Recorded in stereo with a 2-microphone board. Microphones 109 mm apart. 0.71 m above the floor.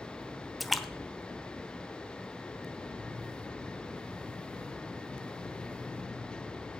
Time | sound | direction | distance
0.6 | a splash | centre (ahead or behind) | 0.7 m